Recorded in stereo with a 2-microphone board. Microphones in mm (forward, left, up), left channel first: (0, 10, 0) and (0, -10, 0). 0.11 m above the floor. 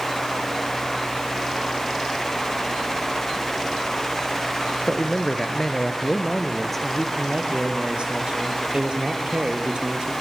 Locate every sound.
4.9 s a man speaking: 25° left (ahead or behind), 1.4 m; by 7.1 s 5° left (ahead or behind), 2.5 m
7.2 s a man speaking: 60° right (ahead or behind), 3 m